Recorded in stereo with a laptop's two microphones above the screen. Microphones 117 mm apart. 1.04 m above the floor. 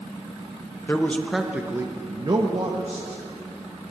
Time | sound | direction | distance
0.9 | a man speaking | 20° left (ahead or behind) | 0.8 m